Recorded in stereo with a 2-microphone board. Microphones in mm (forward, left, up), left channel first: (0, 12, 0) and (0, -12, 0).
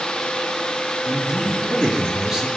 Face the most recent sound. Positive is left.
turn(degrees=-20)  # may be behind; listen again after turning